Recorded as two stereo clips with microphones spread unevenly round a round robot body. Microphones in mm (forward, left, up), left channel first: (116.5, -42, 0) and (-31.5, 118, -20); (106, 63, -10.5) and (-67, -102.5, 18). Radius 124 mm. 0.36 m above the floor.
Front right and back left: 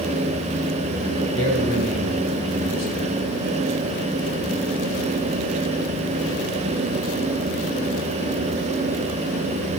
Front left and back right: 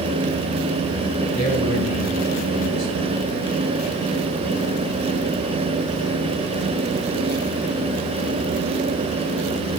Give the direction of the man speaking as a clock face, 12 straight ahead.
10 o'clock.